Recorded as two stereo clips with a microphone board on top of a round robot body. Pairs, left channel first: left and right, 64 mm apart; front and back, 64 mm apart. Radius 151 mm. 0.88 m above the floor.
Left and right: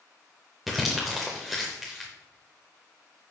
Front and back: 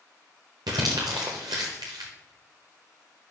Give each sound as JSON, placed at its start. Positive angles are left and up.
{"t": 0.7, "sound": "crumpling", "azimuth_deg": 180, "distance_m": 0.7}